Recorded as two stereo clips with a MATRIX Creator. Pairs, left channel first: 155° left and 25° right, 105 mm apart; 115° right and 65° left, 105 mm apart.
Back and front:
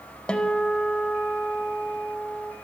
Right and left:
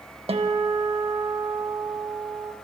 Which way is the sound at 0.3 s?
80° left.